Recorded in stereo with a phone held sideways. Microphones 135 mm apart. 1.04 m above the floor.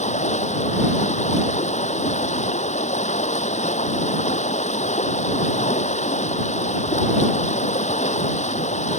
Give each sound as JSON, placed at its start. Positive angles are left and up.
{"t": 0.0, "sound": "running water", "side_deg": 60}